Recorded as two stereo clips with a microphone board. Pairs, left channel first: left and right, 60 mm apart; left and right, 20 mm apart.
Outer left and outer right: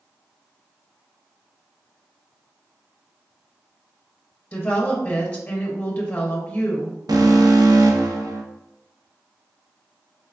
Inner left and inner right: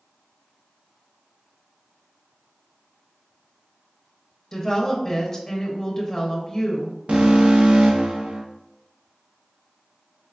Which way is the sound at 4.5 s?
20° left (ahead or behind).